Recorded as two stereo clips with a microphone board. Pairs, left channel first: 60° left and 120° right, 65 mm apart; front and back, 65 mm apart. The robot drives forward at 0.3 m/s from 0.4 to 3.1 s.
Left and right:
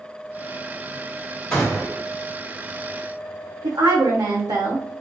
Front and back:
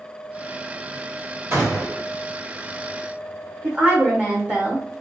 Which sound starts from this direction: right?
A woman speaking, at 3.6 s.